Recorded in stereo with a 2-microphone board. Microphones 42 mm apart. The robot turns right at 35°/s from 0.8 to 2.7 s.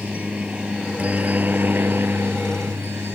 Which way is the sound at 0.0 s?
35° right (ahead or behind).